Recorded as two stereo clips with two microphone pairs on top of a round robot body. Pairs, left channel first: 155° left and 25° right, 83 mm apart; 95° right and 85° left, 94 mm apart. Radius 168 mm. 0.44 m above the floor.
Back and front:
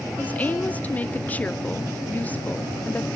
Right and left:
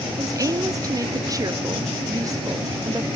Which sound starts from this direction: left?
A woman speaking, at 0.2 s.